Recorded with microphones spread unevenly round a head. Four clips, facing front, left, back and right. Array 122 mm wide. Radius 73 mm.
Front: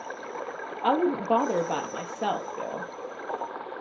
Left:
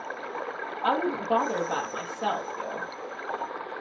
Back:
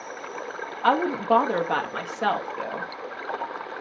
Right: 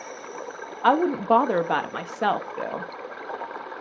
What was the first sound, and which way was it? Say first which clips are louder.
A woman speaking: right 6 dB, back 2 dB; 75° right.